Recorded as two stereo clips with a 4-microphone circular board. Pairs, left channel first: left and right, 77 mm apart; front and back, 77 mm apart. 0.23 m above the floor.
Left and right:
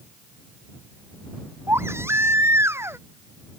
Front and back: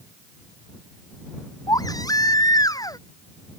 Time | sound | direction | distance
1.7 | a baby crying | 35° right | ?